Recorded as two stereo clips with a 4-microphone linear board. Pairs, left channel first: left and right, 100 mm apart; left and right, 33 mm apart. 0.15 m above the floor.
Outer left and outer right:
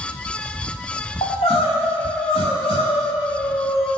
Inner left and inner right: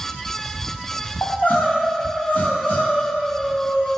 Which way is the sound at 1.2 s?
70° left (ahead or behind).